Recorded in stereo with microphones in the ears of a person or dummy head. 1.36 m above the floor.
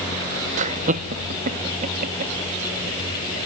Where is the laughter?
45° right (ahead or behind).